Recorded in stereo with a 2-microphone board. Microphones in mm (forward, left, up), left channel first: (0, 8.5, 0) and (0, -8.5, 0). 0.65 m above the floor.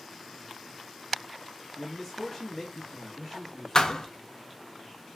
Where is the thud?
45° left (ahead or behind), 0.6 m.